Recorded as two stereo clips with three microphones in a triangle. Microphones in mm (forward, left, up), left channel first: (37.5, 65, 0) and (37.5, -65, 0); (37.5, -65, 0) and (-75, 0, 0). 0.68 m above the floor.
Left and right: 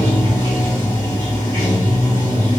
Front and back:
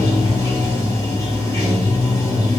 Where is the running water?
35° left, 2 m.